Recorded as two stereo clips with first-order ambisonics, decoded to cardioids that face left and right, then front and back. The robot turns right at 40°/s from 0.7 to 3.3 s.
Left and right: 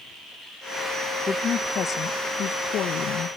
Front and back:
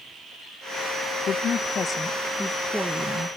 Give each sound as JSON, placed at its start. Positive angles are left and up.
{"t": 1.3, "sound": "a woman speaking", "azimuth_deg": 35, "distance_m": 0.6}